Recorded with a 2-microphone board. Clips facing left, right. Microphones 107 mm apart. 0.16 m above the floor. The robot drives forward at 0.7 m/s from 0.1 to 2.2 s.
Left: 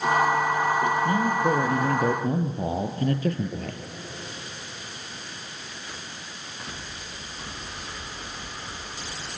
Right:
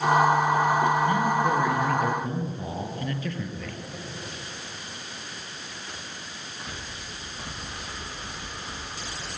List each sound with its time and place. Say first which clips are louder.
1.1 s a man speaking: even; 35° left (ahead or behind), 3.5 m; by 3.8 s 40° left (ahead or behind), 3 m